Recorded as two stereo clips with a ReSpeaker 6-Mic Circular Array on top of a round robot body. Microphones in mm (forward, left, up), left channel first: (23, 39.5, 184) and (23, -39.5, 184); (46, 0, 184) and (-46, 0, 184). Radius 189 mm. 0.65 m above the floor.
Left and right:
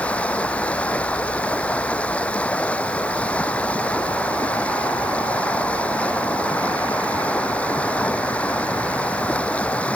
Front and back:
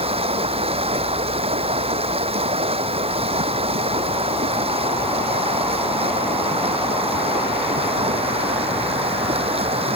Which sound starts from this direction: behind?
Running water, at 0.0 s.